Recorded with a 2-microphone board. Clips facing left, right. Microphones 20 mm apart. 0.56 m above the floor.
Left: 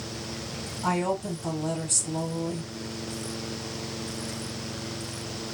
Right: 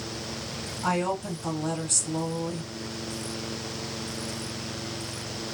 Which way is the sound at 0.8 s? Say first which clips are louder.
Even; 10° right (ahead or behind).